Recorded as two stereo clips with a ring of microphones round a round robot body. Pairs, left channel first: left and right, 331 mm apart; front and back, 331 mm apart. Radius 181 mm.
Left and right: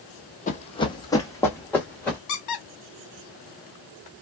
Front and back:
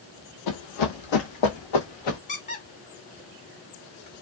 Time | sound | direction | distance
0.5 | running footsteps | 25° left | 0.8 m
2.3 | a squeak | 65° left | 1.3 m